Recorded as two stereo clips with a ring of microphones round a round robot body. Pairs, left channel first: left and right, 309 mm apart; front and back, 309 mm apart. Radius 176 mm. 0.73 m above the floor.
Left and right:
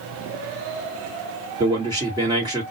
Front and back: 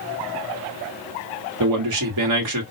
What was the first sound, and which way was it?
A man speaking, 165° right.